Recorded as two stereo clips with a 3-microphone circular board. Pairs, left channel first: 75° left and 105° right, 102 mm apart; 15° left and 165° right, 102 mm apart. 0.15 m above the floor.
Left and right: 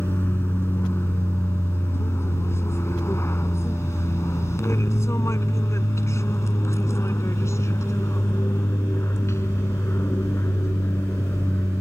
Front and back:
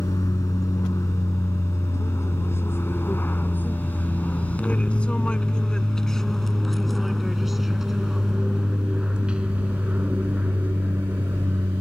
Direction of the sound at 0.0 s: 25° left.